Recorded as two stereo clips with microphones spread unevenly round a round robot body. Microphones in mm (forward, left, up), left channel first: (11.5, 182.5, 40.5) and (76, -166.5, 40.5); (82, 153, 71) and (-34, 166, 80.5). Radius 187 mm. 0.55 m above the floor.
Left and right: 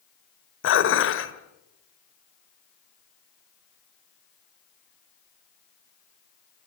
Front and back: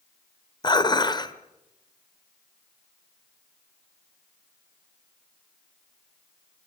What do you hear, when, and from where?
0.6 s dishes clattering: 45° left, 1.8 m